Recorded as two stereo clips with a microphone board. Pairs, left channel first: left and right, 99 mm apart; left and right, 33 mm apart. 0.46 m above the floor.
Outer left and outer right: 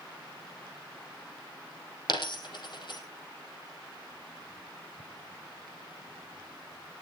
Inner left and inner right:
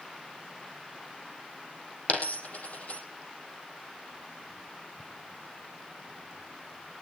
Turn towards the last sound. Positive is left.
turn(degrees=55)  # may be behind; listen again after turning